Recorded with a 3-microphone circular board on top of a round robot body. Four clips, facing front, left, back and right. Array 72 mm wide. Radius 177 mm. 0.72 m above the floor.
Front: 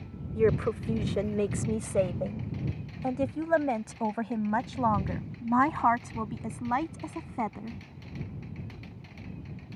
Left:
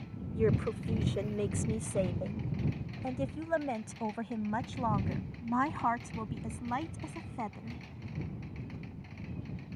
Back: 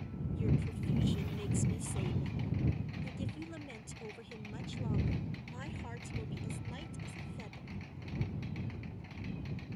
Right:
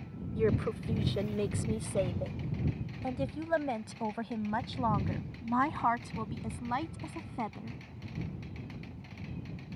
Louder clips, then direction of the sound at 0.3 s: Even, front 12 dB; 5° right.